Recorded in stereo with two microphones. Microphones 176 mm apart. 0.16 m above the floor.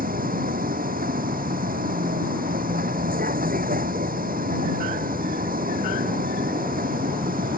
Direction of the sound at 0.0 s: 60° right (ahead or behind).